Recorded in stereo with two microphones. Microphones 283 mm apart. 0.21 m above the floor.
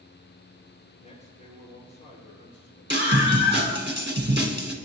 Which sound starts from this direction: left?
A man speaking, at 1.0 s.